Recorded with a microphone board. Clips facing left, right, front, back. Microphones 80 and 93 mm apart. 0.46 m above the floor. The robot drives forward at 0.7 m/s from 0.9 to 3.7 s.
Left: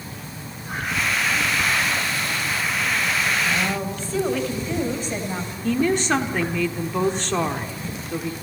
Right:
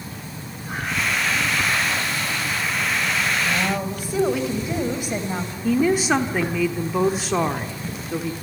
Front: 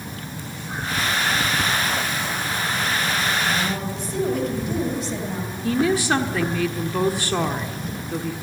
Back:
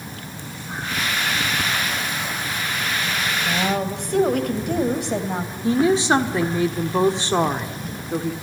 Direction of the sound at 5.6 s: 165° right.